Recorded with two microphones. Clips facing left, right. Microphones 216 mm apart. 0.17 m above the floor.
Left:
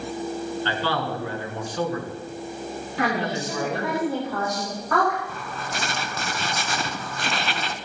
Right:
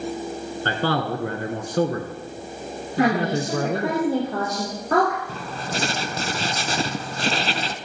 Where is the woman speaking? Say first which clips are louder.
Right 6 dB; 35° right (ahead or behind), 7 m.